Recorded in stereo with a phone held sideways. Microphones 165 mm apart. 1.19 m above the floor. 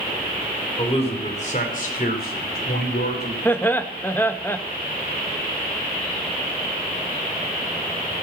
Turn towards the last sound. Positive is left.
turn(degrees=15)  # may be behind; listen again after turning